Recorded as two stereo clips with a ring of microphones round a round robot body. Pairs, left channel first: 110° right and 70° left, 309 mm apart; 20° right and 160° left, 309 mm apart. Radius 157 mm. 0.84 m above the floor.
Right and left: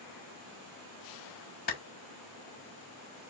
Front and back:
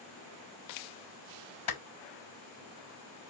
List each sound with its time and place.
1.7 s a clap: 50° right, 4 m